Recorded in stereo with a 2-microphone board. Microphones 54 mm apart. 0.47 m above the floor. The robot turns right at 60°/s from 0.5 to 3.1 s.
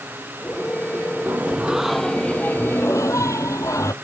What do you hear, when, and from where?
1.3 s singing: 35° right; by 3.9 s 75° left